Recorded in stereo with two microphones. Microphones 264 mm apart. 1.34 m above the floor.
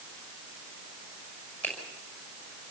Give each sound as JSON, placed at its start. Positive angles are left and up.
{"t": 1.6, "sound": "a finger snap", "side_deg": 5, "distance_m": 6.0}